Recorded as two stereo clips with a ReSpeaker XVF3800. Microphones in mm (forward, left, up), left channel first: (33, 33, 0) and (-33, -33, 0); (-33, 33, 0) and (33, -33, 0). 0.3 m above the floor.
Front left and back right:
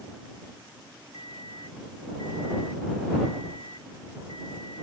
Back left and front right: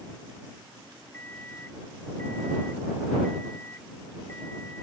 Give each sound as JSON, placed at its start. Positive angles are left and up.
{"t": 1.1, "sound": "an alarm clock", "azimuth_deg": -155}